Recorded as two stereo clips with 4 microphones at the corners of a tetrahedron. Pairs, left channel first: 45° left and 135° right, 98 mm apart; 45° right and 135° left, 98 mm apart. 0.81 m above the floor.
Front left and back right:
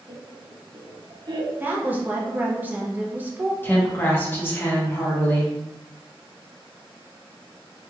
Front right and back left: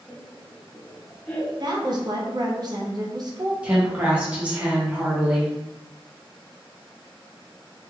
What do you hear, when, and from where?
0.1 s laughter: 115° right, 0.7 m
1.6 s a woman speaking: 160° left, 0.7 m
3.6 s a woman speaking: 80° left, 1.0 m